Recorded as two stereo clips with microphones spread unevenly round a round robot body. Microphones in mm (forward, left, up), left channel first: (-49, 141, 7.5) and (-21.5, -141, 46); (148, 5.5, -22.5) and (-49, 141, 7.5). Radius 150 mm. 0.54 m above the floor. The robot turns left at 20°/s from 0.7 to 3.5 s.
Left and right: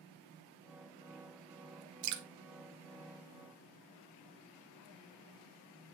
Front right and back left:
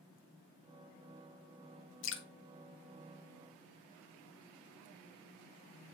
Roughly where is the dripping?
Ahead right.